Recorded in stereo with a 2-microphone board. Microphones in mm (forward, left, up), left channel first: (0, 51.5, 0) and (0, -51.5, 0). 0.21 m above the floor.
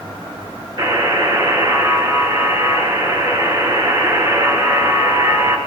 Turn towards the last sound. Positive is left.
turn(degrees=-40)  # may be behind; listen again after turning